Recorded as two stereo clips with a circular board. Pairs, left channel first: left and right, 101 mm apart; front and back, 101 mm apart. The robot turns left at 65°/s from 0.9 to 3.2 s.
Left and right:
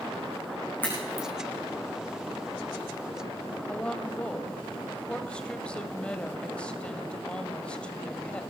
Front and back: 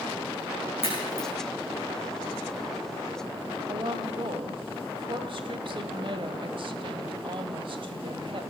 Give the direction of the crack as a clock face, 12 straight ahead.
11 o'clock.